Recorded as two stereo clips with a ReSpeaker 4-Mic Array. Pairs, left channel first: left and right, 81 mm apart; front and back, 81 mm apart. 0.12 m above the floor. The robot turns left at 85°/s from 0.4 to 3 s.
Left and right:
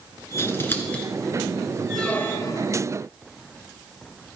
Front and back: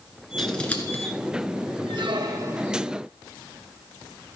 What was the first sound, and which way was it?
Scissors, 85° left.